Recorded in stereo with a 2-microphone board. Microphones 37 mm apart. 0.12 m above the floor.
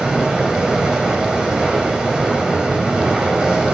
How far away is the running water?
About 1.7 m.